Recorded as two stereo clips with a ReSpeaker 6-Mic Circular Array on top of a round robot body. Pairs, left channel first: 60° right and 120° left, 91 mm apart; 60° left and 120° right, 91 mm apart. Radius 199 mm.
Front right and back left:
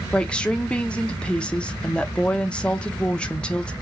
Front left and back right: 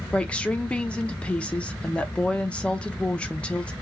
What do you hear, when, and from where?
0.1 s a woman speaking: straight ahead, 0.9 m